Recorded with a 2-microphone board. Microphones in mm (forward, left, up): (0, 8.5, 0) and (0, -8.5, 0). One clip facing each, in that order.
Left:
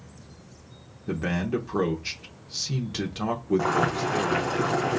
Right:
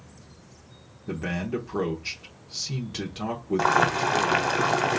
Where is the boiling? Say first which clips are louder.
Right 3 dB; 45° right (ahead or behind), 1.2 m.